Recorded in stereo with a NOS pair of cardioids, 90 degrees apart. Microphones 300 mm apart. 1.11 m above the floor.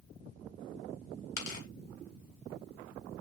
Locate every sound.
1.4 s tearing paper: 70° left, 1.9 m